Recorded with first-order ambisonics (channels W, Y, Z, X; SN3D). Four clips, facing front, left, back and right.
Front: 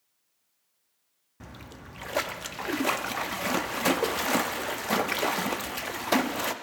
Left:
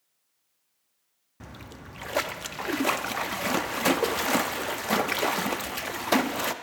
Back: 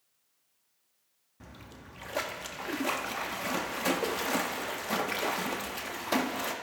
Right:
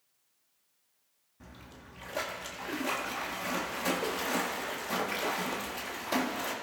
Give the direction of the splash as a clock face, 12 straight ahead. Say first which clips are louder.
Left 7 dB, front 4 dB; 10 o'clock.